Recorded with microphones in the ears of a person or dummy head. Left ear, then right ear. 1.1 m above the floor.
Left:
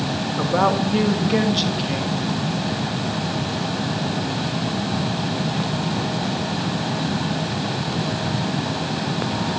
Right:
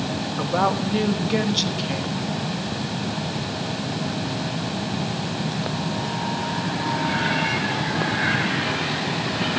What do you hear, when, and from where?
0.4 s a woman speaking: 10° right (ahead or behind), 1.3 m